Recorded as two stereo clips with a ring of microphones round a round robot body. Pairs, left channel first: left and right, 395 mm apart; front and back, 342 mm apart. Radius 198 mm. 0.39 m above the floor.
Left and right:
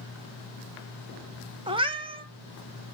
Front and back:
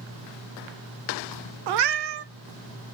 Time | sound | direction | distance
1.7 | a cat meowing | 170° right | 0.8 m